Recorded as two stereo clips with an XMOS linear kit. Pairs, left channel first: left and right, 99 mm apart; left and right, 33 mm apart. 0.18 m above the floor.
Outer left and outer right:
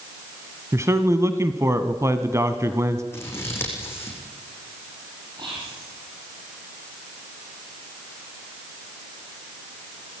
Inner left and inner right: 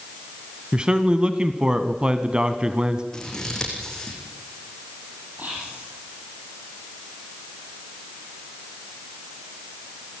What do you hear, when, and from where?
0.7 s a man speaking: 30° right (ahead or behind), 1.2 m
3.1 s scissors: 25° left (ahead or behind), 6 m
5.4 s whispering: 50° right (ahead or behind), 5.5 m